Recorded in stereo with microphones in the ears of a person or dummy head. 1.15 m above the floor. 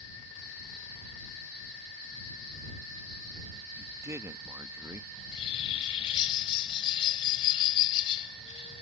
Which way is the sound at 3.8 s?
15° right (ahead or behind).